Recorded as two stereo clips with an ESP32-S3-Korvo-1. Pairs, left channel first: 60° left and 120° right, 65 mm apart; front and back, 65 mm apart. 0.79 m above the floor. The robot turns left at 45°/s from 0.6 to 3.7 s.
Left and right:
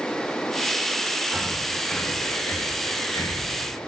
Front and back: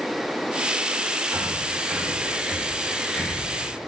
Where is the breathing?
155° left, 0.9 m; by 3.8 s 45° left, 0.9 m.